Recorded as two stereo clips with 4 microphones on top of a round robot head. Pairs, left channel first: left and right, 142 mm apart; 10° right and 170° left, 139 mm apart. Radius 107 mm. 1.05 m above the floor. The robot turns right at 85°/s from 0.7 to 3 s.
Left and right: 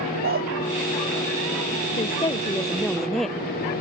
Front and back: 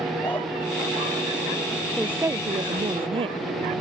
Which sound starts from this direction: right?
A dog barking, at 0.2 s.